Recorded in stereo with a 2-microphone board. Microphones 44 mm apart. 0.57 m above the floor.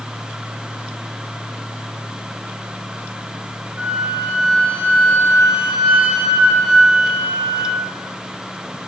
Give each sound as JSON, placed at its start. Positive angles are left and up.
{"t": 3.8, "sound": "a flute", "side_deg": -25, "distance_m": 2.0}